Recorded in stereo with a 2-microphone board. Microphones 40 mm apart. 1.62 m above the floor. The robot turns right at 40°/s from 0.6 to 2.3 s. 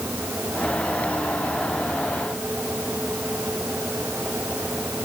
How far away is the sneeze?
No sneeze in this recording.